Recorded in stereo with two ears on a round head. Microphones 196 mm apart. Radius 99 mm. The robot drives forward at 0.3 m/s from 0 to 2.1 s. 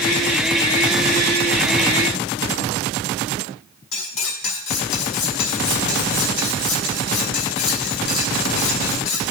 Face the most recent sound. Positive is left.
turn(degrees=60)  # may be behind; listen again after turning